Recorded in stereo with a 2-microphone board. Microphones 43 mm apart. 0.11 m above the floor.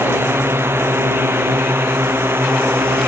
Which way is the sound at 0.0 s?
75° right (ahead or behind).